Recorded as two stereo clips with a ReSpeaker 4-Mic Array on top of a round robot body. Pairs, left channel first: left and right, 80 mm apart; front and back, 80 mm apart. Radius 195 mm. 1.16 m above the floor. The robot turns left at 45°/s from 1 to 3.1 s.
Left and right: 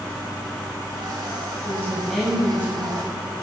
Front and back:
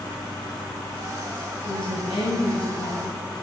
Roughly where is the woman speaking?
Ahead left.